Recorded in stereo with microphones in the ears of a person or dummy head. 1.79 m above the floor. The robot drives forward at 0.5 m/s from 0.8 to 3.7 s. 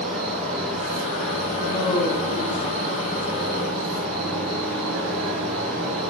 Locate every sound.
0.0 s an insect: 85° right, 4 m; by 6.1 s 70° right (ahead or behind), 4 m
1.6 s a woman speaking: 25° left (ahead or behind), 1.3 m; by 3.3 s 55° left (ahead or behind), 0.7 m